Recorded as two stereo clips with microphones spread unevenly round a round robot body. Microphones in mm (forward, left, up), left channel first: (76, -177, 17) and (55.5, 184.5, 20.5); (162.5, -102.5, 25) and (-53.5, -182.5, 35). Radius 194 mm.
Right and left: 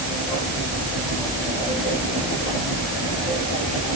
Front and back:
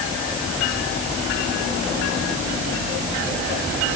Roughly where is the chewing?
No chewing in this recording.